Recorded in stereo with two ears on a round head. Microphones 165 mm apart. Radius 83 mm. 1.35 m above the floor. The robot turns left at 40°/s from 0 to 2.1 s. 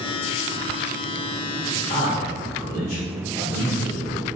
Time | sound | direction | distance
1.9 | a man speaking | 20° left (ahead or behind) | 1.5 m